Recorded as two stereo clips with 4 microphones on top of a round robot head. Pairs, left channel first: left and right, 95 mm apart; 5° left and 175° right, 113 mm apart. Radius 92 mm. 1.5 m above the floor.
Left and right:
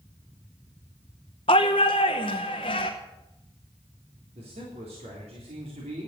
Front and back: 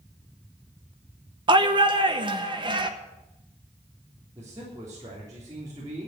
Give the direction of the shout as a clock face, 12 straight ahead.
7 o'clock.